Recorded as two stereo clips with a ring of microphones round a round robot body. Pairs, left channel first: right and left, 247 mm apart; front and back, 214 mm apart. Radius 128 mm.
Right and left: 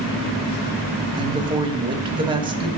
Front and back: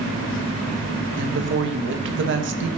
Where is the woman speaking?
160° left, 1.5 m.